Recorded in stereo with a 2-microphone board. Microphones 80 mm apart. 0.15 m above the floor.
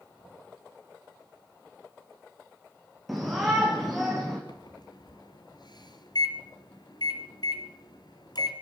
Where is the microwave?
60° left (ahead or behind), 3 m.